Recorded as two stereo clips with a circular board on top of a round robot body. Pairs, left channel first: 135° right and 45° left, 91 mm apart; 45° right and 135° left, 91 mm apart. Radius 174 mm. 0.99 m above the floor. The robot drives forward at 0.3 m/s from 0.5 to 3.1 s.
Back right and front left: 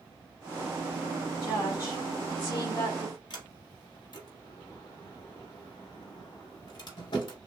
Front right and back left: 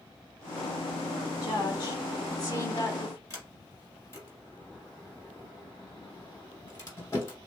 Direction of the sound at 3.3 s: 105° right.